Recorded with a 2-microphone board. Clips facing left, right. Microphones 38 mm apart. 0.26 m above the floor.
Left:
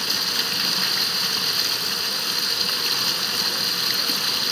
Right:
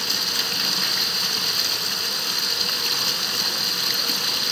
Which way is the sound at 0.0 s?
5° left (ahead or behind).